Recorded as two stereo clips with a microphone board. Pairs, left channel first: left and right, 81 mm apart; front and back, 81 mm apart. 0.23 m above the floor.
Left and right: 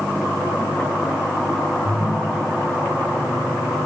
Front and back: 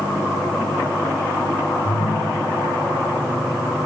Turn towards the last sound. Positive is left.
turn(degrees=-20)